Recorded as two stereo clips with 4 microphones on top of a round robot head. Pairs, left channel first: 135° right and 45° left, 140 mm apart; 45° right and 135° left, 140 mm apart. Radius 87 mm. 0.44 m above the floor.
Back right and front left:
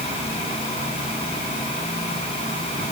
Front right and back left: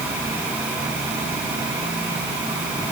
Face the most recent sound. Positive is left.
No sound to turn to.